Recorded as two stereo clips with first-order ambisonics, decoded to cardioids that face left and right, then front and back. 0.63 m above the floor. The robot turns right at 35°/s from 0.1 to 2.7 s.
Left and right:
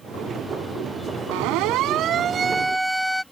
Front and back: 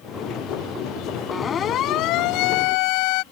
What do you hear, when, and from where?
1.3 s a siren: 75° right; by 3.2 s 5° left